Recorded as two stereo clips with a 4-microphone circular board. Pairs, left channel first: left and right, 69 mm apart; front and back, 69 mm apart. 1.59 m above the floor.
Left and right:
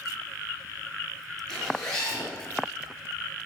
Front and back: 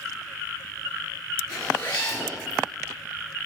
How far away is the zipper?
About 2.5 m.